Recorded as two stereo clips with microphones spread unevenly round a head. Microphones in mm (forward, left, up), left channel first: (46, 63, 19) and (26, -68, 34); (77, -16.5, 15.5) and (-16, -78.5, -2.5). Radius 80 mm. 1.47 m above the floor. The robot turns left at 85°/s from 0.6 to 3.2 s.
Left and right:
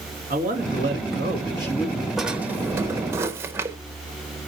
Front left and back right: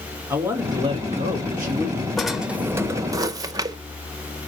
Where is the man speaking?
75° right, 2 m; by 2.1 s 160° left, 2 m.